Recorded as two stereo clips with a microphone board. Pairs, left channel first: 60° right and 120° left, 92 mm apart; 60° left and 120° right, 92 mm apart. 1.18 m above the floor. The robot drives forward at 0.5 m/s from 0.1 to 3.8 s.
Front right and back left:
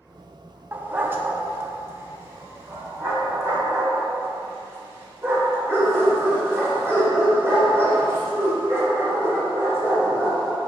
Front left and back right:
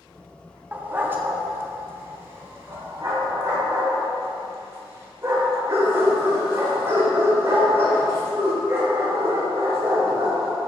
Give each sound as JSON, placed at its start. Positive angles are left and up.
{"t": 0.7, "sound": "a dog barking", "azimuth_deg": 180, "distance_m": 0.6}